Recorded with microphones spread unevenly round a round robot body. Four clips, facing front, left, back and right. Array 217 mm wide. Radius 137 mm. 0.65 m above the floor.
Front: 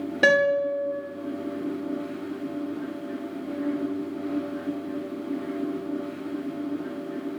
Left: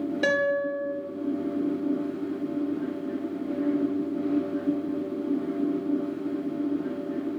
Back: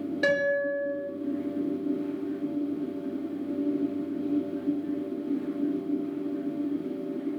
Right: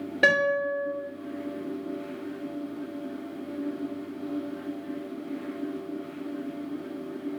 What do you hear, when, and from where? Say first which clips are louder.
0.2 s a guitar: right 2 dB, front 5 dB; 20° right, 1.2 m